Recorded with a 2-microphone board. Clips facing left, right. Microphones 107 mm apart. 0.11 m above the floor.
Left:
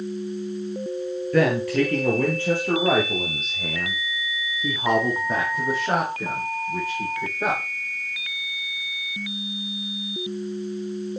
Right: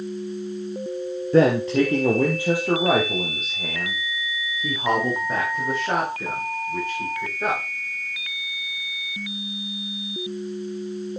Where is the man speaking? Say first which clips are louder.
Right 3 dB; 30° right (ahead or behind), 2 m; by 7.6 s 5° left (ahead or behind), 9 m.